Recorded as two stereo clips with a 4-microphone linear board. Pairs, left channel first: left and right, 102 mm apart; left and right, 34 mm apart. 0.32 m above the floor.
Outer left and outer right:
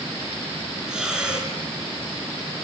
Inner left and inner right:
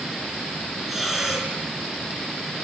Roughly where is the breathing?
Centre.